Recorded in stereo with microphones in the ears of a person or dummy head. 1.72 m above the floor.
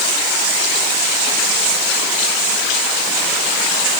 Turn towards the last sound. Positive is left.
No sound to turn to.